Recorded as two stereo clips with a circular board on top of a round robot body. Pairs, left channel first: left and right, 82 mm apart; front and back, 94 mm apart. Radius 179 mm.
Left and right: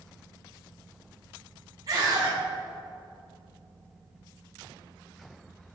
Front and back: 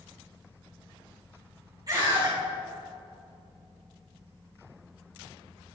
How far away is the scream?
About 3.5 m.